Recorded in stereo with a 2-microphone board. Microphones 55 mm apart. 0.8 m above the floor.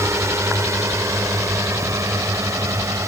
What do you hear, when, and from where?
0.0 s a drone: 65° right (ahead or behind); by 3.1 s 70° right (ahead or behind)